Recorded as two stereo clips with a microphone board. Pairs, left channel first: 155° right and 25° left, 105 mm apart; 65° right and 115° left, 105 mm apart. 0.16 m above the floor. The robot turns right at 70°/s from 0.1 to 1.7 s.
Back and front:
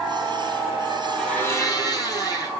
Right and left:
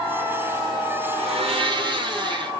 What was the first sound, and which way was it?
A blender, 115° left.